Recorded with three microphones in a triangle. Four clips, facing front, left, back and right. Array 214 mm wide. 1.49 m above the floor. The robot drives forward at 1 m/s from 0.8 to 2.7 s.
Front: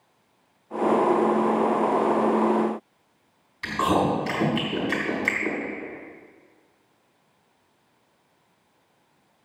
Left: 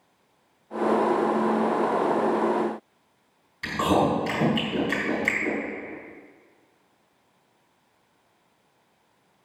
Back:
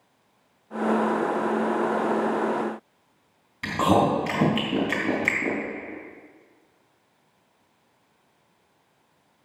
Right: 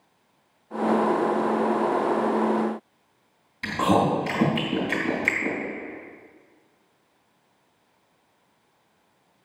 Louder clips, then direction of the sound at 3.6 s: Right 1 dB, back 2 dB; 145° right.